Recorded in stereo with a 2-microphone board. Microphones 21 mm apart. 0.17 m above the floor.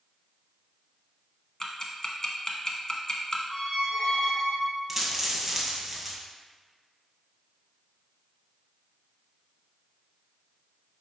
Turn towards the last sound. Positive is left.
turn(degrees=-5)  # may be behind; listen again after turning